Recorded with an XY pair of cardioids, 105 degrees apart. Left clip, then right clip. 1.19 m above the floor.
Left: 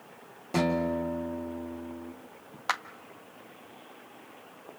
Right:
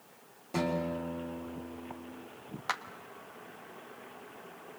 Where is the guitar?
40° left, 4 m.